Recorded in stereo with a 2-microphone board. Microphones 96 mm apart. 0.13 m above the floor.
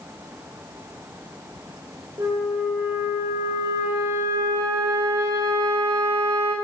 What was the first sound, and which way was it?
A flute, 35° right (ahead or behind).